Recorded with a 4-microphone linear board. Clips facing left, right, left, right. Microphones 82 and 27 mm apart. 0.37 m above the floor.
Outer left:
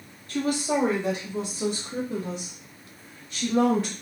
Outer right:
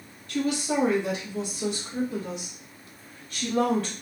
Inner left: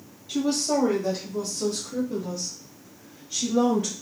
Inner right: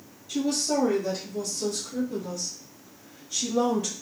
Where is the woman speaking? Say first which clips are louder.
Outer left 1 dB, inner left 2 dB; 40° left (ahead or behind), 1.8 m; by 3.9 s 15° left (ahead or behind), 1.2 m.